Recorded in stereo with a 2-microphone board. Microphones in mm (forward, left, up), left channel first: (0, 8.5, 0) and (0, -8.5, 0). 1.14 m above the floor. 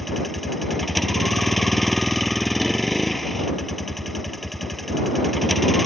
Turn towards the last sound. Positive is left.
turn(degrees=5)  # may be behind; listen again after turning